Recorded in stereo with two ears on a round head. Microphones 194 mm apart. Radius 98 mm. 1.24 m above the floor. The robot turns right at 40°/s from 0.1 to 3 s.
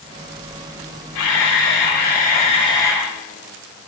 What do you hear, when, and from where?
1.1 s a camera shutter: 95° left, 4 m; by 3.1 s 170° left, 4 m